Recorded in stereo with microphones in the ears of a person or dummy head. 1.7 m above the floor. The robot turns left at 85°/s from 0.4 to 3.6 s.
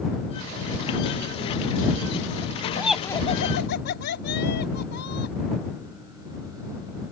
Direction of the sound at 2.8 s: 170° right.